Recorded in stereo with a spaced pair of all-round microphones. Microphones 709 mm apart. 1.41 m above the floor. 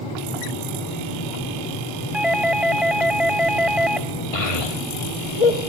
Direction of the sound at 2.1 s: Centre (ahead or behind).